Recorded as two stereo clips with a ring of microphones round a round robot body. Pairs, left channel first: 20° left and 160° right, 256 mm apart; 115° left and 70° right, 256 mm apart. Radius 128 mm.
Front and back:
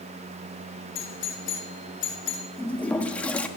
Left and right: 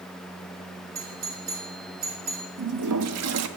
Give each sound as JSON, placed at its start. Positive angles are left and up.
{"t": 0.9, "sound": "a doorbell", "azimuth_deg": -15, "distance_m": 3.0}
{"t": 2.6, "sound": "a toilet flushing", "azimuth_deg": -60, "distance_m": 1.2}